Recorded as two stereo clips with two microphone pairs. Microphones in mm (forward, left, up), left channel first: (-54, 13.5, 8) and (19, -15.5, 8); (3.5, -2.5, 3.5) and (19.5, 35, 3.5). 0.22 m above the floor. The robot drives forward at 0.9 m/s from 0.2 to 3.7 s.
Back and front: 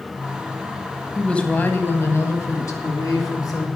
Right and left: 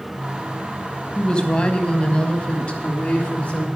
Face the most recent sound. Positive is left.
turn(degrees=-175)